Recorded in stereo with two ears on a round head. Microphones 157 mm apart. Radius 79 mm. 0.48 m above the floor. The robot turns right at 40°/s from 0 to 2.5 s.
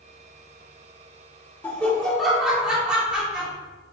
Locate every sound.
1.6 s laughter: 10° left (ahead or behind), 0.8 m; by 3.5 s 5° right (ahead or behind), 0.8 m